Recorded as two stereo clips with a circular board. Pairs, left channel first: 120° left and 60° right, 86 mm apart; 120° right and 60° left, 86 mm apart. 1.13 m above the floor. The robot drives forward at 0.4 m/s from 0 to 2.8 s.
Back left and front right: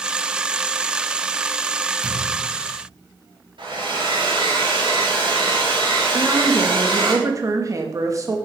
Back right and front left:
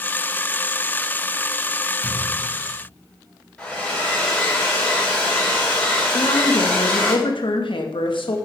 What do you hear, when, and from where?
2.0 s a thud: 10° right, 3.5 m
3.6 s a hair dryer: 40° right, 6 m
6.1 s a woman speaking: 110° right, 1.8 m